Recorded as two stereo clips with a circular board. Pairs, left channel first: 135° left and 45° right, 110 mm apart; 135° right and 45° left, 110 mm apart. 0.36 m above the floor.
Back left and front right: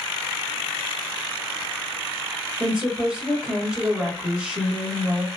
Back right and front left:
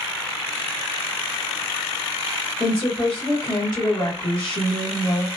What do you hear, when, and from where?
2.6 s a woman speaking: 125° right, 1.0 m